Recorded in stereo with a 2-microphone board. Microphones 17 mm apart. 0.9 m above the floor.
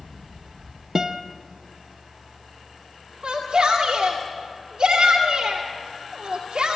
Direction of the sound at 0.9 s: 25° right (ahead or behind).